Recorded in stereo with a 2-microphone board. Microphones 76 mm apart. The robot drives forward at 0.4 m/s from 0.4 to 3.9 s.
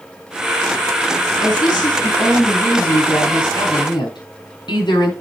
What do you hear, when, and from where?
1.4 s a woman speaking: 65° left (ahead or behind), 5 m; by 5.1 s 75° left (ahead or behind), 4.5 m